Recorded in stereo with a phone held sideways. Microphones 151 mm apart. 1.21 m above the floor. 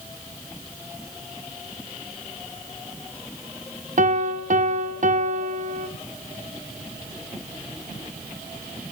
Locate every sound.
4.0 s a piano: 55° right (ahead or behind), 0.9 m